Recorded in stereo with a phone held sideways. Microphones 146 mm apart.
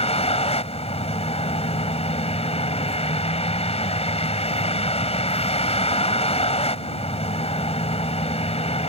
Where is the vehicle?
40° left (ahead or behind).